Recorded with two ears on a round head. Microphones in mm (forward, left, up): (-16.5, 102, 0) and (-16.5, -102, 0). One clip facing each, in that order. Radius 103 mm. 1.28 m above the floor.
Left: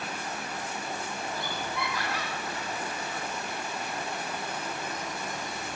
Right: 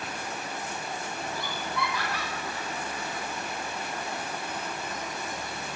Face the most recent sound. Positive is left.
turn(degrees=-85)